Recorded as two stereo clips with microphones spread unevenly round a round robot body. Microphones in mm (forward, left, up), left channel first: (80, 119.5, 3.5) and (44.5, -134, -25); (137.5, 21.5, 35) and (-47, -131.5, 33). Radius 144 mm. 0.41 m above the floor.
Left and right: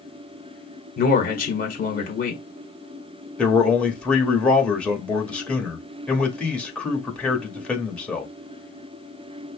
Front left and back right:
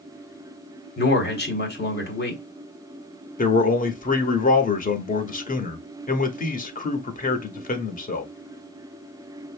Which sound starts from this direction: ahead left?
A man speaking, at 1.0 s.